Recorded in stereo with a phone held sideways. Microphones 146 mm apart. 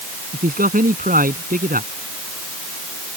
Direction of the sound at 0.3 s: 75° right (ahead or behind).